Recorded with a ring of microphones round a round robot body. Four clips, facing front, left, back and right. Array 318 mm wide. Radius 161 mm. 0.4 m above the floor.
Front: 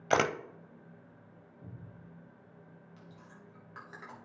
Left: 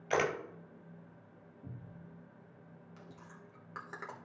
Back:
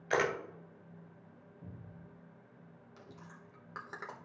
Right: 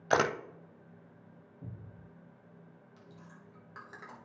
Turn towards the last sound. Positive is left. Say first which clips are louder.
# even, back 3 dB
turn(degrees=145)